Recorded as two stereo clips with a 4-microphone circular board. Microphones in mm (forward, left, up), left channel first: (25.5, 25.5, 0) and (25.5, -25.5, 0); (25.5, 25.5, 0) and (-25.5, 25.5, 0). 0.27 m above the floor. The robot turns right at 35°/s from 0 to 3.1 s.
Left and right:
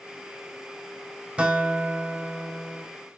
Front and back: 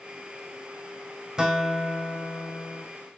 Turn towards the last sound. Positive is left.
turn(degrees=-60)